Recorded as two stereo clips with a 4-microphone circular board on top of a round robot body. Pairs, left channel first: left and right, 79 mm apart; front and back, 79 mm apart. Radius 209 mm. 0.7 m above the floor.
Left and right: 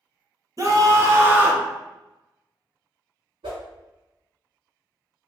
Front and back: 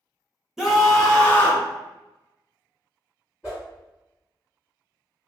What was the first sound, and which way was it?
A scream, 100° right.